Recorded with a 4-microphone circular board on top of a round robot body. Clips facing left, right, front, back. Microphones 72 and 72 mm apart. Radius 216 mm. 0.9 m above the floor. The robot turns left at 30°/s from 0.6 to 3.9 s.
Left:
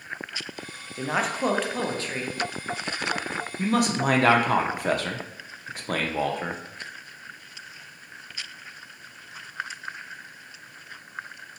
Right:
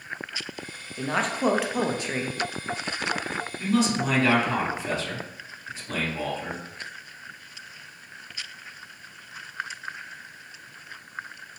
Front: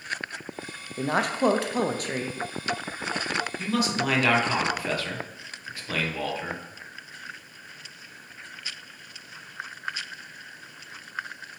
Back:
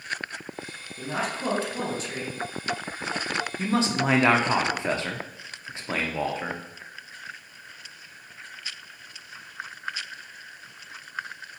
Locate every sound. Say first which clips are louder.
1.0 s a woman speaking: even, front 6 dB; 15° left, 0.5 m; by 2.4 s 30° right, 0.5 m
3.6 s a man speaking: even, back 3 dB; 125° left, 0.6 m; by 6.6 s 115° left, 0.6 m